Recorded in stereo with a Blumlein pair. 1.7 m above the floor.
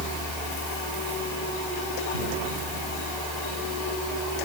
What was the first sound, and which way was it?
A fan, 20° left.